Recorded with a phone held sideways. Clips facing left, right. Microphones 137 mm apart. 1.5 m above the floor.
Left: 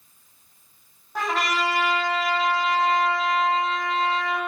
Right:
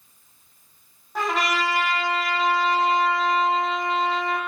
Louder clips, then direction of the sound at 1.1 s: Right 1 dB; centre (ahead or behind).